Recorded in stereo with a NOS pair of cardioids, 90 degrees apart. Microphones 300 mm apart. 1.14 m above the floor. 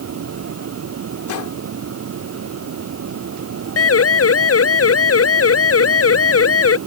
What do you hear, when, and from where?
0.0 s a fan: 50° right
1.3 s a gunshot: 65° left
3.8 s a siren: 45° left